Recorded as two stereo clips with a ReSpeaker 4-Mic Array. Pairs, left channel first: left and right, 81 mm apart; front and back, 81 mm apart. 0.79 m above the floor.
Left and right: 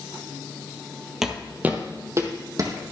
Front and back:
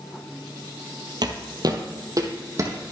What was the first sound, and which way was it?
Footsteps, 175° right.